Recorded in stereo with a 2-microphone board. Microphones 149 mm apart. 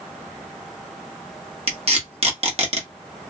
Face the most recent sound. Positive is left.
turn(degrees=-45)  # may be behind; listen again after turning